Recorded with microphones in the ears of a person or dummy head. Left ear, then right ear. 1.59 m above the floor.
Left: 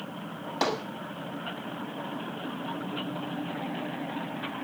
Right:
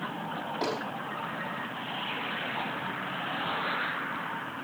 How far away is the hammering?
About 4.5 m.